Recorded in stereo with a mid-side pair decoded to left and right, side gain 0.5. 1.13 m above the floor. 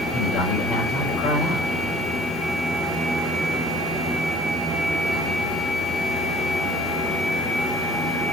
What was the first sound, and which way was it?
A man speaking, 70° left.